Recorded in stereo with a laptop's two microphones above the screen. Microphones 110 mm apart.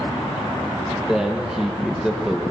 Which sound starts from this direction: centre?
A man speaking, at 1.0 s.